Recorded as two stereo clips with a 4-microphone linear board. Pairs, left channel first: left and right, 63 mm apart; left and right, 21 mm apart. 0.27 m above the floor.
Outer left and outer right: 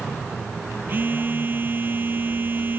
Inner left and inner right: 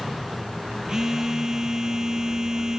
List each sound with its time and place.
0.9 s a phone buzzing: 30° right (ahead or behind)